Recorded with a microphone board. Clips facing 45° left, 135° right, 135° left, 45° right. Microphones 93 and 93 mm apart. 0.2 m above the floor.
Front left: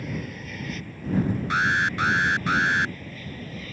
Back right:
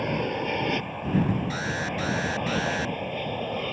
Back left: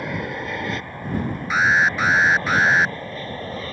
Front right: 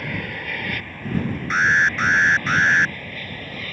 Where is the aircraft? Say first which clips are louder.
Back right 7 dB, back left 3 dB; 155° right; by 3.7 s 165° right.